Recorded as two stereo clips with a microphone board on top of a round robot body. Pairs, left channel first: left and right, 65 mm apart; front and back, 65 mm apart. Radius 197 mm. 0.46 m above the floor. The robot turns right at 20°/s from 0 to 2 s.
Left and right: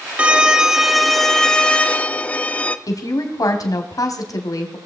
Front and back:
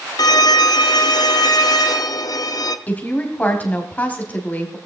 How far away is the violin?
About 0.6 m.